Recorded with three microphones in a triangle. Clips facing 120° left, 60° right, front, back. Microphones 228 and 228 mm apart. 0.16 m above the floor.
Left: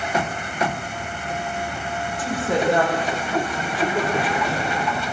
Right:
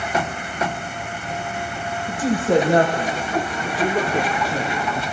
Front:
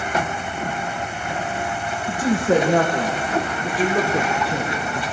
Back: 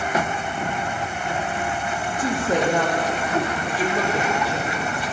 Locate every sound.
2.1 s a woman speaking: straight ahead, 6.5 m; by 5.0 s 30° left, 4.5 m